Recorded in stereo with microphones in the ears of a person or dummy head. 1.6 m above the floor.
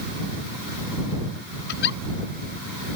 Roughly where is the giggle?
Left.